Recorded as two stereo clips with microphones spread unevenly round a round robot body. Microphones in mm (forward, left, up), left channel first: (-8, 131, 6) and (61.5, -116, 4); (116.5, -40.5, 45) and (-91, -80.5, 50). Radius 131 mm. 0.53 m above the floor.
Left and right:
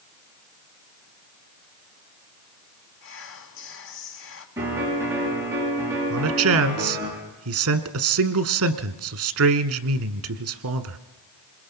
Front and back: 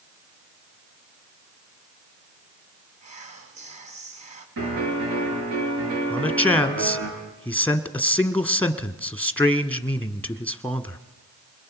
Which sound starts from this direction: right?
A man speaking, at 6.1 s.